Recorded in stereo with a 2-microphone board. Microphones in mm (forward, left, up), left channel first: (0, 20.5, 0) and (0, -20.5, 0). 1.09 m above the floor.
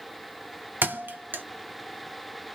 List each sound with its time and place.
0.8 s a thud: 60° right (ahead or behind), 0.8 m